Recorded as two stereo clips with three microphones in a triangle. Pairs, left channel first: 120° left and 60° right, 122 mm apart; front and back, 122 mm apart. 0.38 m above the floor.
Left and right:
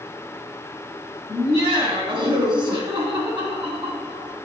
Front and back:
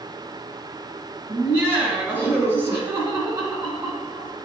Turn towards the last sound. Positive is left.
turn(degrees=-110)